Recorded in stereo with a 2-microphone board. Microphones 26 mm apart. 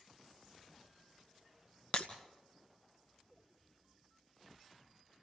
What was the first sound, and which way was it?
Breaking glass, 45° left (ahead or behind).